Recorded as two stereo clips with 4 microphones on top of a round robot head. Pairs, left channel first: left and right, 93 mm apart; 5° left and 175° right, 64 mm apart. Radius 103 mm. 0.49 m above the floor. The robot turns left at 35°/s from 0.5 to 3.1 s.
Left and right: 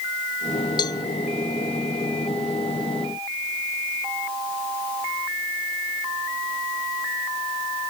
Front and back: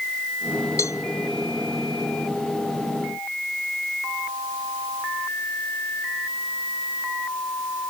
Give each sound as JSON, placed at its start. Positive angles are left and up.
{"t": 0.8, "sound": "a cowbell", "azimuth_deg": 45}